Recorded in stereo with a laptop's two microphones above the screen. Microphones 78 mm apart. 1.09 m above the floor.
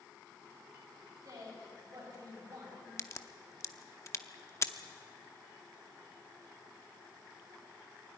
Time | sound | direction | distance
1.2 | a woman speaking | 50° right (ahead or behind) | 5.5 m
3.0 | a crack | 40° left (ahead or behind) | 0.7 m